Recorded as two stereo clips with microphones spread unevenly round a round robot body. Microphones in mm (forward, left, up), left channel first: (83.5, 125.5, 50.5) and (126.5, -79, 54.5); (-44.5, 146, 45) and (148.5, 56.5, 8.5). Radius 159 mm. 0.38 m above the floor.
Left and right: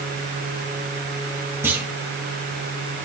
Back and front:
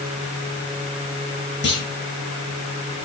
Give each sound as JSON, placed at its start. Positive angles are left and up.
{"t": 1.6, "sound": "a clunk", "azimuth_deg": -160, "distance_m": 1.9}